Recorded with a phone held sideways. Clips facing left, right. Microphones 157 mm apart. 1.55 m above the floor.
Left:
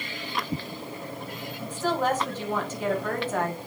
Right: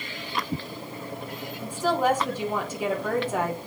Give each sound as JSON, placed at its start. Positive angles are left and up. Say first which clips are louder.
{"t": 1.6, "sound": "a woman speaking", "louder": "right 2 dB", "side_deg": -10, "distance_m": 2.0}